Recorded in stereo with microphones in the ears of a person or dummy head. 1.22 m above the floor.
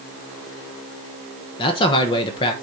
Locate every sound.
1.6 s a man speaking: 30° left (ahead or behind), 1.0 m